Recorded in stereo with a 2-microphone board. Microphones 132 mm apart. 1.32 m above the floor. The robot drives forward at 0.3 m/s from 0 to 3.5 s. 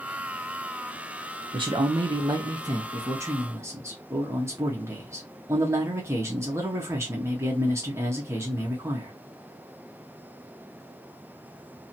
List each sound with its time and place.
1.5 s a man speaking: 40° right (ahead or behind), 0.5 m; by 9.1 s 20° right (ahead or behind), 0.9 m